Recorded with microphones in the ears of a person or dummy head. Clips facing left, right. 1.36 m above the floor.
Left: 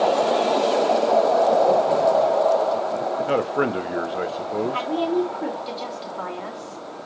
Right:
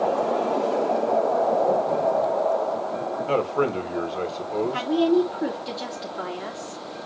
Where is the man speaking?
20° left (ahead or behind), 0.8 m.